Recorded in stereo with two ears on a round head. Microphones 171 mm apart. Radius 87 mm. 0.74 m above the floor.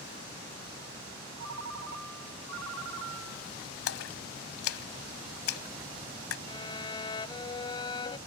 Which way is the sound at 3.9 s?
85° left.